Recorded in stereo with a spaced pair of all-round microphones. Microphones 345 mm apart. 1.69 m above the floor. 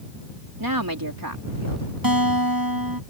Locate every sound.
0.6 s a woman speaking: 85° right; by 1.9 s 75° right (ahead or behind)
2.0 s a guitar: 85° right